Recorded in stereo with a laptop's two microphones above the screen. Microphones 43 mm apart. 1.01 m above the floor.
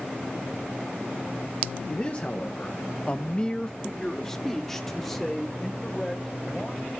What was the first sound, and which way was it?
A man speaking, 30° left (ahead or behind).